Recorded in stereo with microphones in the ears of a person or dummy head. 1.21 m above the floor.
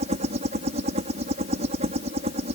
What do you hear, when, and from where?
0.0 s a helicopter: 40° right (ahead or behind)